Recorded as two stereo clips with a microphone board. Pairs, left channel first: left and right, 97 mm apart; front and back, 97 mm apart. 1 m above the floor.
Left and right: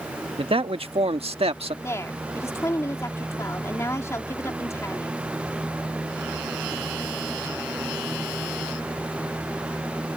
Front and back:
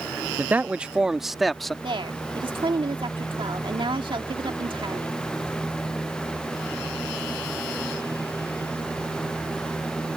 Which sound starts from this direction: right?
A man speaking, at 0.4 s.